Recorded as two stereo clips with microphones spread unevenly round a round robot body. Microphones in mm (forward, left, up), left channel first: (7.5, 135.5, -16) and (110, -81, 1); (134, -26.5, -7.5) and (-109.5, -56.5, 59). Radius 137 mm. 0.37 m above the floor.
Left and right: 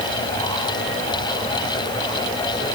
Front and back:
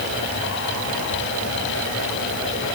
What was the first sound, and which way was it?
Only background noise.